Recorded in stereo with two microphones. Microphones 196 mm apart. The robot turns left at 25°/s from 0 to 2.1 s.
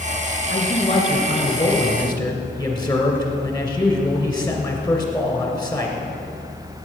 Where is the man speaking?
65° left, 2 m; by 6.0 s 25° left, 2 m.